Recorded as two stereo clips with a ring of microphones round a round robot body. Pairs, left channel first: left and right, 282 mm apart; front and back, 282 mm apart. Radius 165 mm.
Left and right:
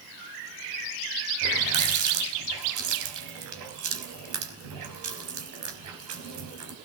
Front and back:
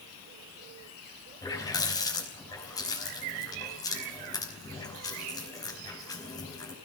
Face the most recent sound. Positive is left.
turn(degrees=-80)